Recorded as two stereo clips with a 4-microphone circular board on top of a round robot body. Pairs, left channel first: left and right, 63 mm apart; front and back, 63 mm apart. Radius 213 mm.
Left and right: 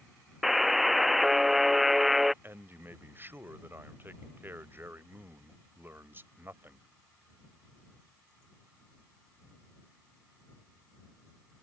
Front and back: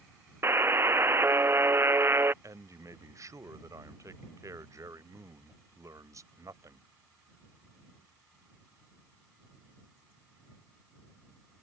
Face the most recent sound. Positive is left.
turn(degrees=-145)